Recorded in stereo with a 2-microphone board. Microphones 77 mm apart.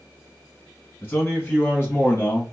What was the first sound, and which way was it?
A man speaking, 25° left (ahead or behind).